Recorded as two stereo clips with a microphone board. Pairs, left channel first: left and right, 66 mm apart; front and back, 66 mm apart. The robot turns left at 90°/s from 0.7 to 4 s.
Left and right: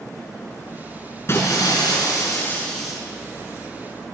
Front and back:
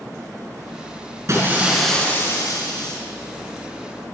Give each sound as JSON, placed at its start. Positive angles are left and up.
{"t": 1.3, "sound": "breaking glass", "azimuth_deg": 140, "distance_m": 6.5}